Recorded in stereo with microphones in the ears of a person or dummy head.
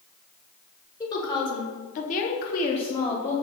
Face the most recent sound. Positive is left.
turn(degrees=10)  # may be behind; listen again after turning